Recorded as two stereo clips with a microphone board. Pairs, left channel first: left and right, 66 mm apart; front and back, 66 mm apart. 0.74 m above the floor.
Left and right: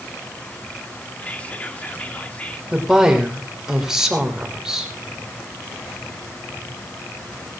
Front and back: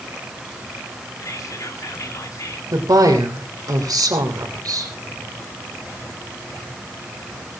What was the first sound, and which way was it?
Whispering, 25° left.